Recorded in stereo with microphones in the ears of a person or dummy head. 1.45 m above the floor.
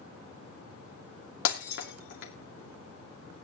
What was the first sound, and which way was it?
Breaking glass, 65° left (ahead or behind).